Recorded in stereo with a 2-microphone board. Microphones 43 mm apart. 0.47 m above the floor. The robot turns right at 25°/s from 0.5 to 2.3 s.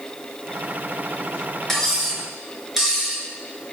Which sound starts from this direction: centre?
Cutlery clinking, at 1.7 s.